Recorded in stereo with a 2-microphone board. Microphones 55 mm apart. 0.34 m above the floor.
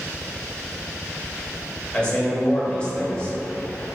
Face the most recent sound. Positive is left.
turn(degrees=20)  # may be behind; listen again after turning